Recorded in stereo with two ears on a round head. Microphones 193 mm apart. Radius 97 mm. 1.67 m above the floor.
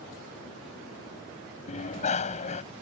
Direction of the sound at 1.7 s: 35° left (ahead or behind).